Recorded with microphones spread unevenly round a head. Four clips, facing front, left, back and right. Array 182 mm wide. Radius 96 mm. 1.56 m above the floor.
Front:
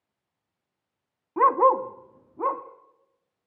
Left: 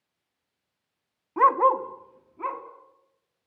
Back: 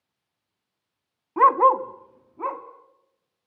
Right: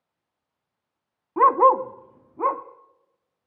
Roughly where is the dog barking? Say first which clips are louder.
Right 3 dB, back 2 dB; ahead right.